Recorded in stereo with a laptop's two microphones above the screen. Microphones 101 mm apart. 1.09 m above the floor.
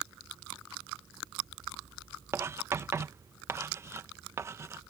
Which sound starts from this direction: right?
Writing, at 2.3 s.